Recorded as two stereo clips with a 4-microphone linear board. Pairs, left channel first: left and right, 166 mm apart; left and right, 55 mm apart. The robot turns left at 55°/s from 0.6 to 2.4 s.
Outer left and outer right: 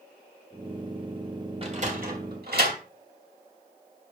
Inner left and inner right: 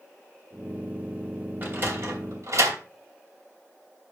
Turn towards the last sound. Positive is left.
turn(degrees=-70)  # may be behind; listen again after turning